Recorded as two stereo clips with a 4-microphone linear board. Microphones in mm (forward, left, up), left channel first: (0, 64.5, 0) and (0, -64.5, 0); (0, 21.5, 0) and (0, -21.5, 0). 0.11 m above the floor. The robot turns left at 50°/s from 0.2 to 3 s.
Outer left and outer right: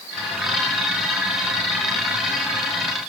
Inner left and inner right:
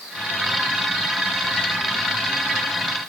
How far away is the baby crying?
No baby crying in this recording.